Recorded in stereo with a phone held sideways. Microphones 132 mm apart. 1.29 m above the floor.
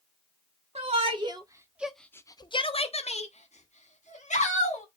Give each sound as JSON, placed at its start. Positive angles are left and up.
{"t": 0.8, "sound": "a shout", "side_deg": -50, "distance_m": 1.0}